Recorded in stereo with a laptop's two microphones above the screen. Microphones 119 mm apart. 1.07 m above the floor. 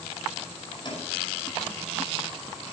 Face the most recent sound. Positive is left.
turn(degrees=40)  # may be behind; listen again after turning